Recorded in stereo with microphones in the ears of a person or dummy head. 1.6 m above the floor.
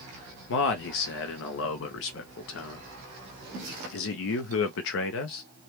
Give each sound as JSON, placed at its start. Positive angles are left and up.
{"t": 0.5, "sound": "a man speaking", "side_deg": 60, "distance_m": 0.6}